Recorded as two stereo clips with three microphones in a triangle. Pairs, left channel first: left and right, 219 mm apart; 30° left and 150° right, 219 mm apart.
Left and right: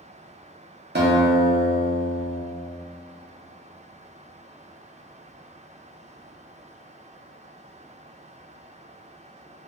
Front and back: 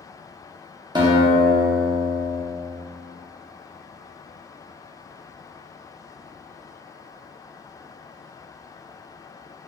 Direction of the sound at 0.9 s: 85° right.